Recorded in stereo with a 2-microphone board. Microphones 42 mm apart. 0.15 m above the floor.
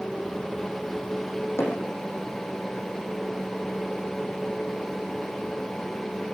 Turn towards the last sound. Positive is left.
turn(degrees=80)